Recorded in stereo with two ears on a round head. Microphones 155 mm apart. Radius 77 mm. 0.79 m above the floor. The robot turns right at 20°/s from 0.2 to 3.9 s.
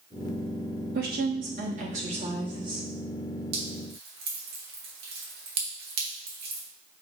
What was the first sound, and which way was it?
A woman speaking, 65° right.